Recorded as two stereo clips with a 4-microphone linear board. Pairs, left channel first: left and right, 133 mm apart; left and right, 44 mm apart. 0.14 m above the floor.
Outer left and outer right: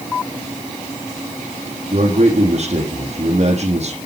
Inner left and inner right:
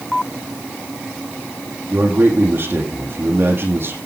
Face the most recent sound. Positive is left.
turn(degrees=-55)  # may be behind; listen again after turning